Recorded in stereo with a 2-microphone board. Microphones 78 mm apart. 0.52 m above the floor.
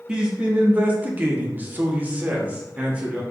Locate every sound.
0.1 s a man speaking: 15° right (ahead or behind), 1.1 m